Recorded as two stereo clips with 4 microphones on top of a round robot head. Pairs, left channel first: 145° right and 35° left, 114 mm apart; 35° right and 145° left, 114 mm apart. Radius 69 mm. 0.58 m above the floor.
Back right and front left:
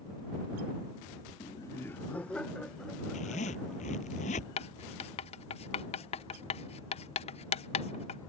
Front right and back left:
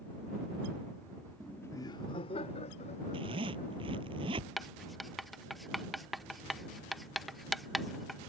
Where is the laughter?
130° right; by 4.1 s 55° right.